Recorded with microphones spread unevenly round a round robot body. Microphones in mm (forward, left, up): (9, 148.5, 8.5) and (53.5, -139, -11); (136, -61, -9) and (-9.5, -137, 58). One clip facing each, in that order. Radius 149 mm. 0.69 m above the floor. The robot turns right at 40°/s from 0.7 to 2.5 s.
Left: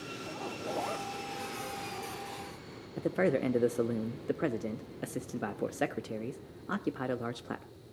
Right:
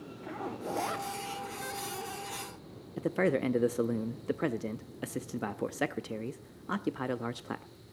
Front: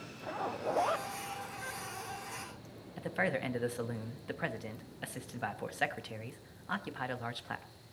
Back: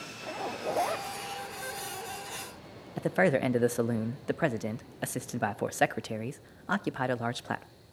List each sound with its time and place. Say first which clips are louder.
0.2 s a zipper: right 3 dB, back 2 dB; 60° right, 1.1 m; by 1.1 s 45° right, 1.1 m
3.0 s a man speaking: even, back 9 dB; 155° right, 0.5 m